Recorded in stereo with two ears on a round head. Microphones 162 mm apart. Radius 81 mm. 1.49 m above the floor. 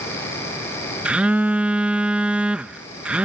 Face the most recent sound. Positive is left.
turn(degrees=-5)  # may be behind; listen again after turning